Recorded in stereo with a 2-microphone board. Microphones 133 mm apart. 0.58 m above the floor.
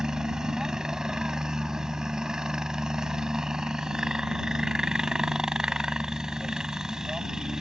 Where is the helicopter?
5° right (ahead or behind).